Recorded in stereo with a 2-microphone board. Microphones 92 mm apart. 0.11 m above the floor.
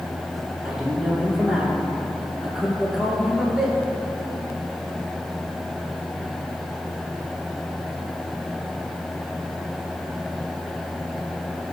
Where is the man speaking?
5° right (ahead or behind), 2 m.